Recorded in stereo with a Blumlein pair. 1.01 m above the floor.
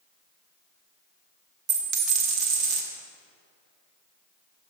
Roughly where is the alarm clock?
I don't hear an alarm clock.